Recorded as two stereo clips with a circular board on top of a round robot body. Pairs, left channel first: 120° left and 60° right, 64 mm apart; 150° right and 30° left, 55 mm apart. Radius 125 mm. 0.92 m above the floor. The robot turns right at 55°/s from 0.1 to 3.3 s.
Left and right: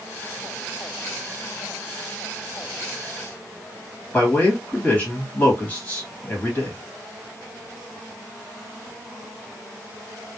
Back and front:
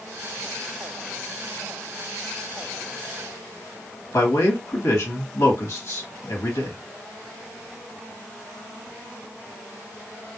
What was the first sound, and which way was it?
A man speaking, straight behind.